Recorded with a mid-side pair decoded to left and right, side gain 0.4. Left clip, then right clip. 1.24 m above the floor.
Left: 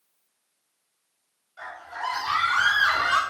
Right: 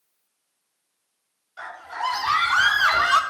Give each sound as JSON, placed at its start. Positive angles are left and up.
{"t": 1.6, "sound": "a scream", "azimuth_deg": -65, "distance_m": 5.0}